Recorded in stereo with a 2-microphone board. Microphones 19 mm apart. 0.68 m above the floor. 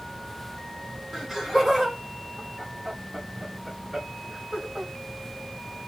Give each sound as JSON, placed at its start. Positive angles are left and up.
{"t": 1.1, "sound": "laughter", "side_deg": -25, "distance_m": 1.2}